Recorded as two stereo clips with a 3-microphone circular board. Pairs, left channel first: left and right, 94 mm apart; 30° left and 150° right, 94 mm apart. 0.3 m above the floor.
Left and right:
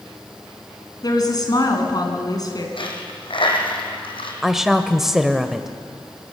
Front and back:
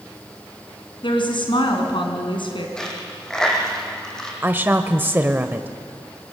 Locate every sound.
1.0 s a woman speaking: 50° left, 3 m
2.8 s a dropped coin: 115° left, 3 m
4.4 s a woman speaking: 170° right, 0.9 m